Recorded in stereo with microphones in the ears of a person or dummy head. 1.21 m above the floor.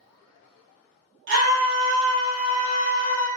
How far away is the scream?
About 1.2 m.